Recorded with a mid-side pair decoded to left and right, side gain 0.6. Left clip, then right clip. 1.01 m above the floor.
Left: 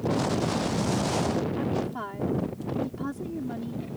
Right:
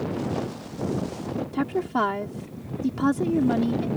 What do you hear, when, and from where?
1.5 s a woman speaking: 55° right